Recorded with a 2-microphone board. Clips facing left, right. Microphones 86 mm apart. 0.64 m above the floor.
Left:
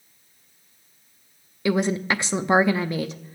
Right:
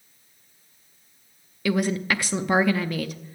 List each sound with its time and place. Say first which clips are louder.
1.6 s a woman speaking: left 1 dB; 25° left (ahead or behind), 0.6 m